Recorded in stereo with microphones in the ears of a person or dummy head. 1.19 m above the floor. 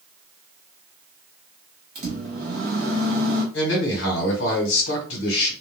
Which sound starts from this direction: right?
A microwave, at 1.9 s.